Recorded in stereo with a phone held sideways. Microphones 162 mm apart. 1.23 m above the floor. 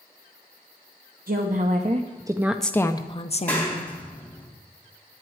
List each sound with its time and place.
1.3 s a woman speaking: 60° right (ahead or behind), 1.0 m; by 3.9 s 55° left (ahead or behind), 1.1 m
3.5 s a clap: 10° left (ahead or behind), 2.5 m